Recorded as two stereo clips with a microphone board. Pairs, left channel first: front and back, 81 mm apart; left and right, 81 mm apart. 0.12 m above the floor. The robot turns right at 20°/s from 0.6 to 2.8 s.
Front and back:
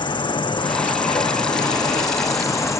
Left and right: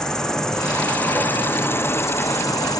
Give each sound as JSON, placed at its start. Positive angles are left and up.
{"t": 0.0, "sound": "an insect", "azimuth_deg": 10, "distance_m": 2.0}